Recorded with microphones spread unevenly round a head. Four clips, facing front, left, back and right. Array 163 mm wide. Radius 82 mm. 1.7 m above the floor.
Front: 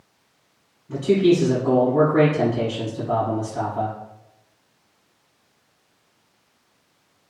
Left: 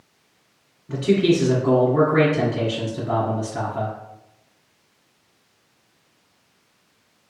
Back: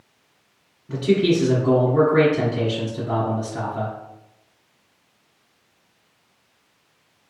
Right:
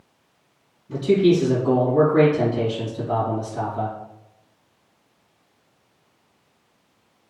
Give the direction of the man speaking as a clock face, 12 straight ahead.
8 o'clock.